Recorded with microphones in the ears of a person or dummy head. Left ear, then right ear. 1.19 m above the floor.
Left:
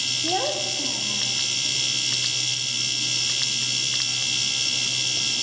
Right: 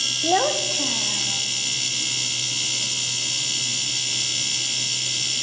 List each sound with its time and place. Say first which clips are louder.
0.2 s a child speaking: right 4 dB; 75° right (ahead or behind), 1.2 m; by 1.4 s 90° right, 2.5 m